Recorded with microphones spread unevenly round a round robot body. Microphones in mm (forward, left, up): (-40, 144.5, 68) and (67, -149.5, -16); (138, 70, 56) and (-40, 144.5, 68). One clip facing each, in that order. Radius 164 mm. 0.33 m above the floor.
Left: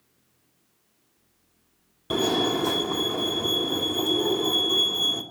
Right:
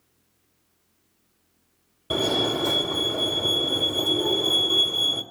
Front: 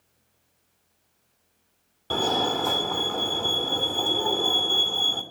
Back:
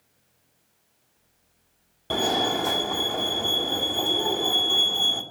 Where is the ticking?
No ticking in this recording.